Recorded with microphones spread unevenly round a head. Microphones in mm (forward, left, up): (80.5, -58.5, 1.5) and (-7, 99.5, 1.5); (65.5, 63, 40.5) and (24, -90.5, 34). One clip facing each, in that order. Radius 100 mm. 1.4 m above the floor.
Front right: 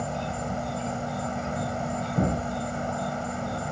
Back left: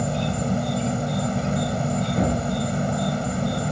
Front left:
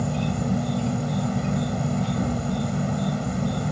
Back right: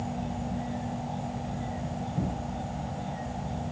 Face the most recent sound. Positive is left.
turn(degrees=70)